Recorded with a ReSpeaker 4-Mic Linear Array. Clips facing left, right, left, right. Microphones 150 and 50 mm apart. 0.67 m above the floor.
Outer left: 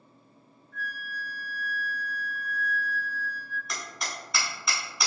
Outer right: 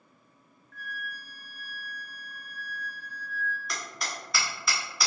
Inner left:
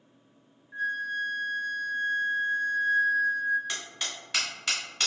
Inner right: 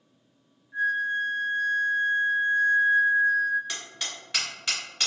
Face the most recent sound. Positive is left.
turn(degrees=0)  # may be behind; listen again after turning